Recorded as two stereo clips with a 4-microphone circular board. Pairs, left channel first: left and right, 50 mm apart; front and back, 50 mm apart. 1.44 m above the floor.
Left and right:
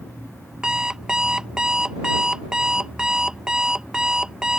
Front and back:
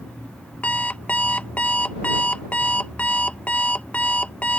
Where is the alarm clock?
30° right.